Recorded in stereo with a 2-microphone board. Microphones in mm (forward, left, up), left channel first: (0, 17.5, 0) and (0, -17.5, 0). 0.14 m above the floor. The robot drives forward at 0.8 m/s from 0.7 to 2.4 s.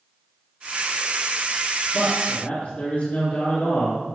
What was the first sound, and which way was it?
A man speaking, 30° left (ahead or behind).